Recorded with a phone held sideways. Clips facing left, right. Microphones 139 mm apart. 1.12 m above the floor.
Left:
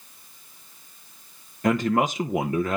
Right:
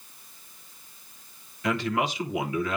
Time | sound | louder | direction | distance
1.6 | a man speaking | left 5 dB | 45° left (ahead or behind) | 0.7 m